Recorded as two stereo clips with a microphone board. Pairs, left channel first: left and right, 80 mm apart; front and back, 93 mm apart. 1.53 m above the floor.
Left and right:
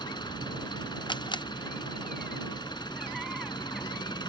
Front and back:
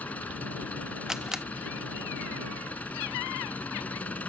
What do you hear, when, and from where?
0.0 s an engine running: 75° left
1.1 s a camera shutter: 95° left